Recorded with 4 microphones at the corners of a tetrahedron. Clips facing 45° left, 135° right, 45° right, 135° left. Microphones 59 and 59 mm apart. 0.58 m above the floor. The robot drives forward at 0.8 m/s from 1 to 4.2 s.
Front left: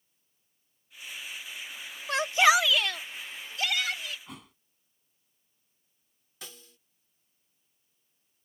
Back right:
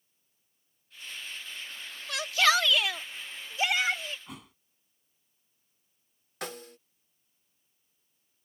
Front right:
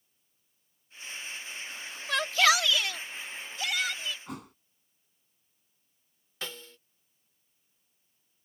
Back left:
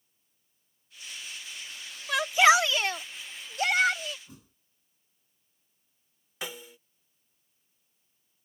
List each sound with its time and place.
2.1 s a shout: 50° left; by 4.2 s 170° left
4.3 s a thud: 45° right
6.4 s a snare drum: 150° right